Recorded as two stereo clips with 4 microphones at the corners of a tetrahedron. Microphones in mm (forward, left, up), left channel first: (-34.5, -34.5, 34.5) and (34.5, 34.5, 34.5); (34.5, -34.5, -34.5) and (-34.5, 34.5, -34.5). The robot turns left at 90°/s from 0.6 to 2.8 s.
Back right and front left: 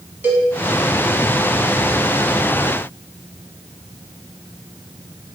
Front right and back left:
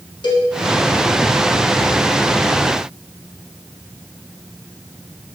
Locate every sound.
0.2 s a cowbell: 25° right, 0.8 m